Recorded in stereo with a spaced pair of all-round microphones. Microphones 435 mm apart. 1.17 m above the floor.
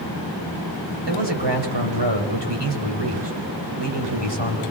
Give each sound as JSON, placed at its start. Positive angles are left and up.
{"t": 1.1, "sound": "a man speaking", "side_deg": -70, "distance_m": 5.0}